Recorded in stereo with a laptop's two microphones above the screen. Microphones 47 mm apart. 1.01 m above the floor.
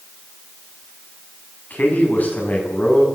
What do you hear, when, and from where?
1.7 s a man speaking: 40° left (ahead or behind), 7.5 m